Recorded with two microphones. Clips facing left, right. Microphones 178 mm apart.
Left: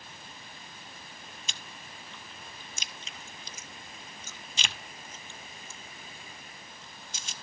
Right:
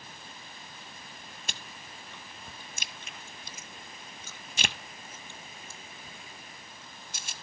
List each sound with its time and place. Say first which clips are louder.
1.5 s chewing: right 1 dB; 65° right (ahead or behind), 0.7 m